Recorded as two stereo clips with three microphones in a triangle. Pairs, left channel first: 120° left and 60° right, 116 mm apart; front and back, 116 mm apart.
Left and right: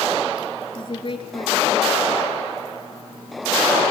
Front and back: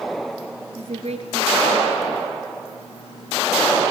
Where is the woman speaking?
160° left, 3 m.